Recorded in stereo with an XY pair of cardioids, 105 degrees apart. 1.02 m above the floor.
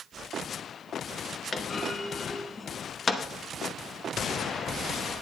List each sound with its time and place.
1.5 s a clunk: 35° left, 0.9 m